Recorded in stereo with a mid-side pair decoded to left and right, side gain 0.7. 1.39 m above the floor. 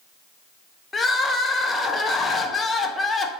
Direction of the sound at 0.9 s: 20° left.